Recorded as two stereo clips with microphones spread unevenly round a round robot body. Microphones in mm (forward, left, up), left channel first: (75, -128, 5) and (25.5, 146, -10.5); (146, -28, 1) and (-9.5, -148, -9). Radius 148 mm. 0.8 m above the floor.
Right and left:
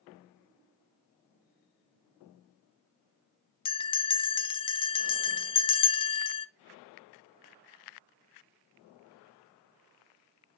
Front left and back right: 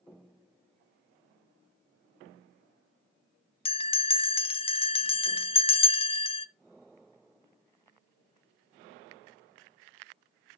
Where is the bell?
15° right, 0.5 m.